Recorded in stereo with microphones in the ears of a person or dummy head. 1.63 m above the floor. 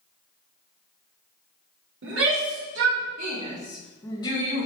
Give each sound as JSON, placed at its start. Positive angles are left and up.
{"t": 2.0, "sound": "a shout", "side_deg": -85, "distance_m": 2.5}